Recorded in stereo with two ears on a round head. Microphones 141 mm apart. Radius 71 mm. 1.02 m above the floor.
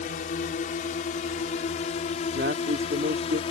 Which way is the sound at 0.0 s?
55° left (ahead or behind).